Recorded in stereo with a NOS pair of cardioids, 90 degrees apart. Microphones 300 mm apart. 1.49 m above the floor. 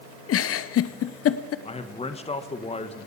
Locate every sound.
0.3 s a giggle: 50° left, 0.7 m
1.6 s a man speaking: 20° left, 1.4 m